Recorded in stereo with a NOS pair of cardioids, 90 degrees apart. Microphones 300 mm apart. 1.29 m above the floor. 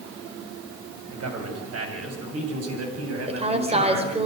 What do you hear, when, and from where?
1.1 s a man speaking: 50° right, 7.5 m; by 4.2 s 55° right, 10 m
3.3 s a woman speaking: 20° right, 5 m